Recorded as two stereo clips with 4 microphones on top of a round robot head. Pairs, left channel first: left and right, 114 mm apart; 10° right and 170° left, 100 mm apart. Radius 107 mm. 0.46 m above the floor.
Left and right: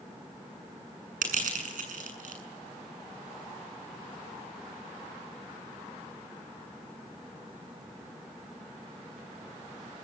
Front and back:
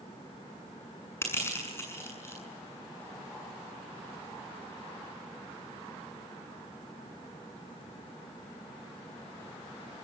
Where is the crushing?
80° right, 7.5 m.